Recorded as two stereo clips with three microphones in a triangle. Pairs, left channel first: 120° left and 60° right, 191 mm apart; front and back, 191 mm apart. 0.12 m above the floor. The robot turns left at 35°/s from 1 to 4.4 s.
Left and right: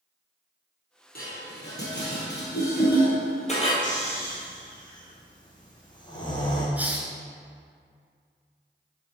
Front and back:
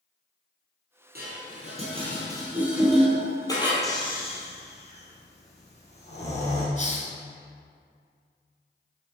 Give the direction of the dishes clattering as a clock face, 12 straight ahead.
7 o'clock.